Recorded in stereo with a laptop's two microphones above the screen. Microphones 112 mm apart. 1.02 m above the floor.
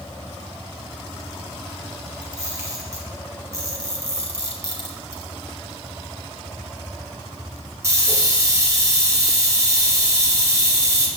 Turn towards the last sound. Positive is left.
turn(degrees=-25)  # may be behind; listen again after turning